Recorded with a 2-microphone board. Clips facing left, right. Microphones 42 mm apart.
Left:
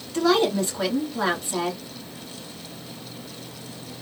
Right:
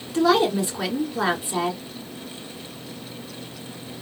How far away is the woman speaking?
About 1.6 m.